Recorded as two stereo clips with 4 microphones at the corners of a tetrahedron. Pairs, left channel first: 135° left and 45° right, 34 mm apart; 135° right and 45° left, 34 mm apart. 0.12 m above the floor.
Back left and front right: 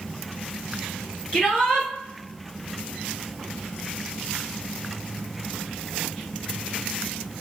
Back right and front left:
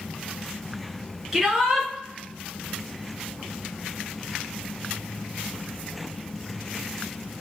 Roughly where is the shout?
Behind left.